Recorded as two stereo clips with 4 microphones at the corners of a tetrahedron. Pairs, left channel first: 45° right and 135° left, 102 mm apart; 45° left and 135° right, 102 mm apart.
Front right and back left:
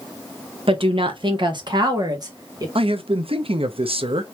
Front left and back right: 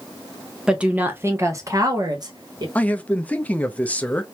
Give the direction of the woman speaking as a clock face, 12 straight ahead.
7 o'clock.